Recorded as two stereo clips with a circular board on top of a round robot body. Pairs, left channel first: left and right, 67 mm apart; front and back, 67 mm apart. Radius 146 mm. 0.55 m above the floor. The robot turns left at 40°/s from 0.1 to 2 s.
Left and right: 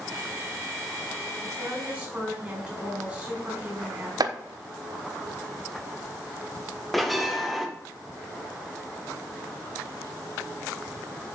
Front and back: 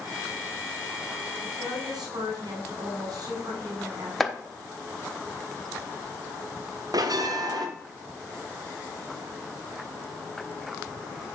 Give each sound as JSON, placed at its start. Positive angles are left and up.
{"t": 1.4, "sound": "a woman speaking", "azimuth_deg": -140, "distance_m": 6.0}
{"t": 4.2, "sound": "chopping", "azimuth_deg": -90, "distance_m": 1.3}
{"t": 6.9, "sound": "a bell", "azimuth_deg": 180, "distance_m": 1.9}